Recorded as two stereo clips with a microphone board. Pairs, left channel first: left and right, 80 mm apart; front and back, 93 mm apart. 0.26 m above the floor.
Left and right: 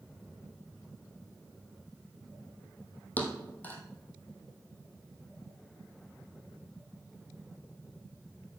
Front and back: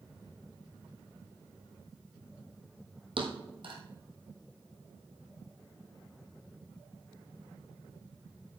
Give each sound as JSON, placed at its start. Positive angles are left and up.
{"t": 3.2, "sound": "a thud", "azimuth_deg": 160, "distance_m": 1.8}